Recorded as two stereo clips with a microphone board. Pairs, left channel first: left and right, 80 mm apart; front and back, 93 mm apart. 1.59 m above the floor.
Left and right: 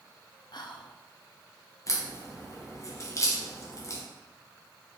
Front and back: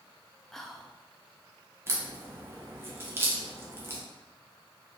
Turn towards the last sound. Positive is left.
turn(degrees=120)